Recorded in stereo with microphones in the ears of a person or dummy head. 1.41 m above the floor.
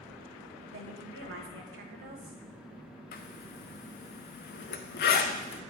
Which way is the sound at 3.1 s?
50° left (ahead or behind).